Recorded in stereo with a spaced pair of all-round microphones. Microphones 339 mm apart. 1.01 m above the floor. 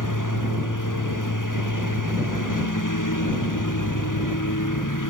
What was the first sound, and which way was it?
A lawn mower, 65° left (ahead or behind).